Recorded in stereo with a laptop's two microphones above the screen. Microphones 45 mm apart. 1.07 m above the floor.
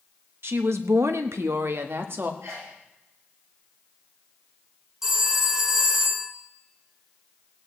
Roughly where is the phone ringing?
Centre.